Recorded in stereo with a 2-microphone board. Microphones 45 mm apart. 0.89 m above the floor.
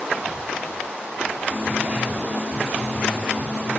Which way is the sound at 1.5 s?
20° right (ahead or behind).